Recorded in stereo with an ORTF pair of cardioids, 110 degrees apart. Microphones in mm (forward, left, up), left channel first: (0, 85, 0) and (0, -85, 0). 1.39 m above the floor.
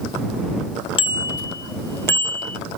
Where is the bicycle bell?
30° left; by 2.6 s 10° left.